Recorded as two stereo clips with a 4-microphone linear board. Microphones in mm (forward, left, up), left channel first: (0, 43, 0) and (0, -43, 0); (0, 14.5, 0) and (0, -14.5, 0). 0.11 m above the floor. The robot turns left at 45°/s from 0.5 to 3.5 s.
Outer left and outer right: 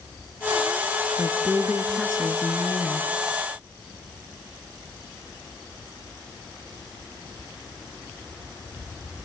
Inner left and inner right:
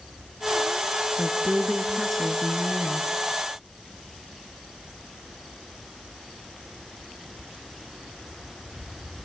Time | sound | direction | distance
1.2 | a woman speaking | 15° right (ahead or behind) | 1.5 m